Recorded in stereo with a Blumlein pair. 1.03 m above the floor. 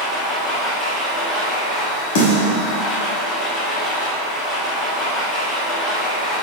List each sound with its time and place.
0.0 s a machine running: 10° left, 1.2 m
2.1 s a snare drum: 50° left, 1.2 m